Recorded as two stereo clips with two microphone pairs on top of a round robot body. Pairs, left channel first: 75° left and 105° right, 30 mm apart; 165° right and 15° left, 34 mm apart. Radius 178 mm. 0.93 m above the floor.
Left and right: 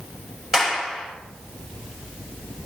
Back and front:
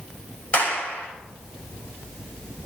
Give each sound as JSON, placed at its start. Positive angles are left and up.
{"t": 0.5, "sound": "a clap", "azimuth_deg": 180, "distance_m": 6.0}